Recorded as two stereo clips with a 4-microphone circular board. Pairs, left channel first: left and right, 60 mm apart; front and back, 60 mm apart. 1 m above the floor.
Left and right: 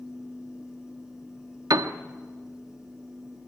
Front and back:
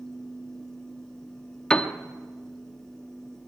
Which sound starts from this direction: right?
A piano, at 1.7 s.